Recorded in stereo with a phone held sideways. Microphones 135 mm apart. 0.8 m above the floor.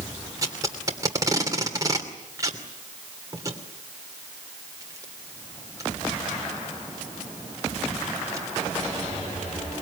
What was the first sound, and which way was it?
Tape being pulled, 25° right (ahead or behind).